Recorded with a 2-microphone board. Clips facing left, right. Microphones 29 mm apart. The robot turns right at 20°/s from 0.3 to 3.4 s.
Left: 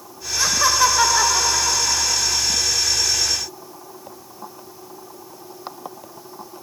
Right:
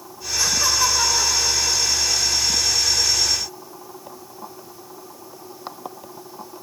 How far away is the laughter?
About 1.1 m.